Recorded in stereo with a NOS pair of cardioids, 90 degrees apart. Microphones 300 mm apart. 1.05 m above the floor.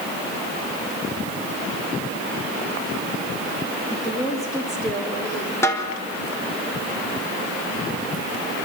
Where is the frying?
No frying in this recording.